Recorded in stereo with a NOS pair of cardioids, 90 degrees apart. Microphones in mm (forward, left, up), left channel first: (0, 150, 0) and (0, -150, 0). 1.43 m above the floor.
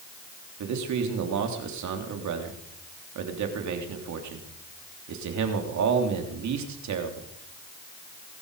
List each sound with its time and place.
0.6 s a man speaking: 70° right, 3.5 m